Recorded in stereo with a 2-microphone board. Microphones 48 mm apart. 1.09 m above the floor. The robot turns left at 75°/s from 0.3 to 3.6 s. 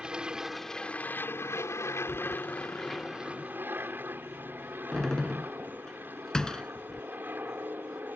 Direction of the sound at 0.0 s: 160° right.